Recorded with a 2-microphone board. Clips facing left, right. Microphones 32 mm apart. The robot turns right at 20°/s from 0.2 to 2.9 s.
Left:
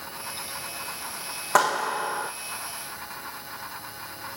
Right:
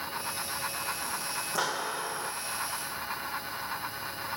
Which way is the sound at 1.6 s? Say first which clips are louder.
Left 11 dB; 70° left (ahead or behind).